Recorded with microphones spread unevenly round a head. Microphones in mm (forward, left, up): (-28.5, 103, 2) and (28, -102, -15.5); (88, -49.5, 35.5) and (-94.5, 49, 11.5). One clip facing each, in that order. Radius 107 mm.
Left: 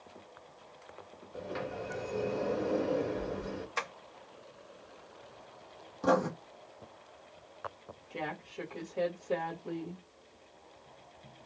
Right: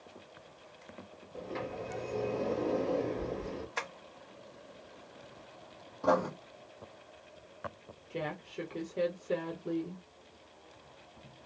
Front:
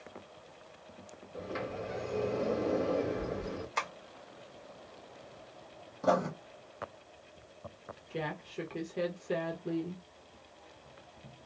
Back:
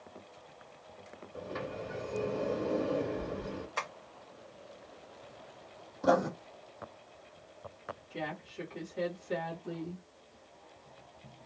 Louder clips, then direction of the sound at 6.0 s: Left 1 dB, back 2 dB; 55° left.